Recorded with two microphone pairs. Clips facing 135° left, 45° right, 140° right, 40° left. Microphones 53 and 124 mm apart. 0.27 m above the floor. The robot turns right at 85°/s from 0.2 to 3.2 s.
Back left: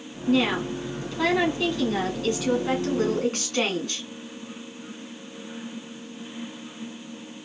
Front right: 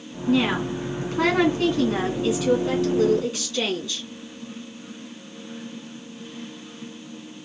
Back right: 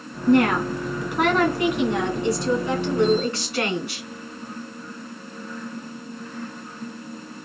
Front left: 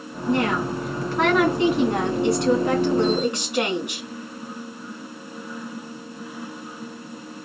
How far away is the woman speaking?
About 2.5 m.